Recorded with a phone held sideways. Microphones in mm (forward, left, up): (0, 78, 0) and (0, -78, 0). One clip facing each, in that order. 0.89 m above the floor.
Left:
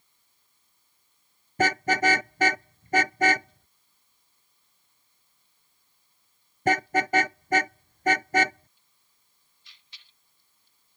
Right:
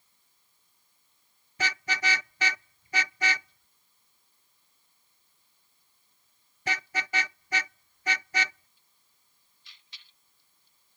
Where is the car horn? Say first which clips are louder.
Left 10 dB; 50° left (ahead or behind).